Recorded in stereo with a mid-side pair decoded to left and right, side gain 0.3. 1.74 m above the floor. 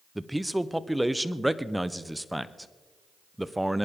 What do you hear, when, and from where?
0.1 s a man speaking: 5° right, 0.9 m